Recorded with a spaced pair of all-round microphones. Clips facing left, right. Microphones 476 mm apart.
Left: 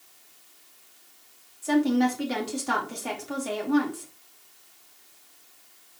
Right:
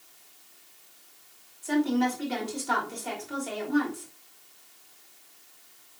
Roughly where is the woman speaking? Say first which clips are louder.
Left 3 dB; left.